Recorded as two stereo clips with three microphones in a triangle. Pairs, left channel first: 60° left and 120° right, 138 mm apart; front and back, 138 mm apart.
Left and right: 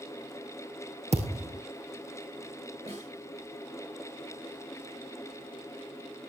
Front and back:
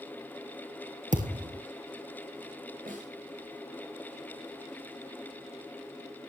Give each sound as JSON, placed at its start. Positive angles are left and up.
{"t": 1.1, "sound": "a thud", "azimuth_deg": -160, "distance_m": 3.0}
{"t": 2.9, "sound": "a snare drum", "azimuth_deg": -160, "distance_m": 10.0}